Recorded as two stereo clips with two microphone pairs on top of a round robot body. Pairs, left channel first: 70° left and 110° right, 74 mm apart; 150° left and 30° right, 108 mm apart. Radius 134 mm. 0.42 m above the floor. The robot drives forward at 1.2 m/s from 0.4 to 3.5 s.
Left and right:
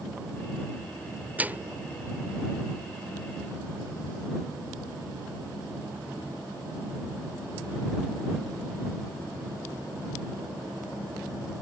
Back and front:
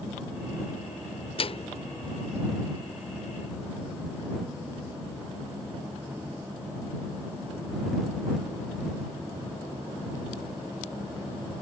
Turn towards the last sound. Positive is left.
turn(degrees=180)